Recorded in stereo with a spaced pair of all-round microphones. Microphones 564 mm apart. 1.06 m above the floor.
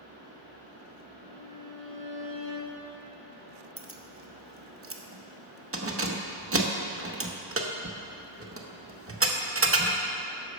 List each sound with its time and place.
0.0 s a fan: 75° left (ahead or behind), 2.5 m
1.2 s a violin: 55° left (ahead or behind), 2 m
3.8 s keys jangling: 25° right (ahead or behind), 0.6 m